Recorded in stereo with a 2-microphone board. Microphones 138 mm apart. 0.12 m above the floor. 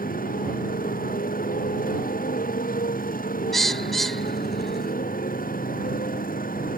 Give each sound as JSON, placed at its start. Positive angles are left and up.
{"t": 0.0, "sound": "a motorcycle", "side_deg": 75}
{"t": 3.5, "sound": "a bird", "side_deg": 0}